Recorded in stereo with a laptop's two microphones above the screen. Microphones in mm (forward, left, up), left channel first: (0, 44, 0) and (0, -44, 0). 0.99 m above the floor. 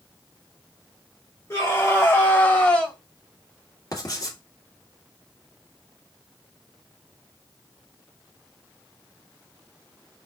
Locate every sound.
1.5 s a scream: 40° left (ahead or behind), 3.5 m; by 3.0 s 10° left (ahead or behind), 2 m
3.9 s writing: 45° left (ahead or behind), 1.9 m